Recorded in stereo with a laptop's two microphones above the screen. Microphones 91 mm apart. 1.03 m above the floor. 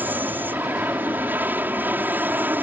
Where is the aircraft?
20° right (ahead or behind).